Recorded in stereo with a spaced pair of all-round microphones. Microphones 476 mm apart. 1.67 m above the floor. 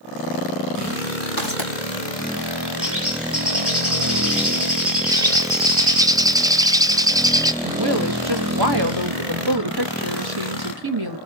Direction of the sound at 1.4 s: 45° right (ahead or behind).